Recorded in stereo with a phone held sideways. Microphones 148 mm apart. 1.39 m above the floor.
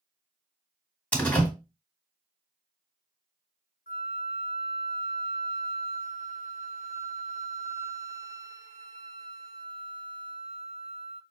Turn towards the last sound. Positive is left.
turn(degrees=85)